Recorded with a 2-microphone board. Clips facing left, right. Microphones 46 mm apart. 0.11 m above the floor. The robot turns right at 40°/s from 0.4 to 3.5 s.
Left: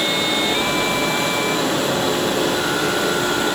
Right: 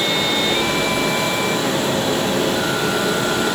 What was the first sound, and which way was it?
Running water, 20° left.